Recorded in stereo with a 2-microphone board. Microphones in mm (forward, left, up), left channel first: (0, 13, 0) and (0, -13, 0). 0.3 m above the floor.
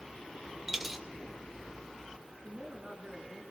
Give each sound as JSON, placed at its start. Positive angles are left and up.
{"t": 0.7, "sound": "a dropped coin", "side_deg": -10, "distance_m": 0.8}
{"t": 2.4, "sound": "a woman speaking", "side_deg": -30, "distance_m": 4.0}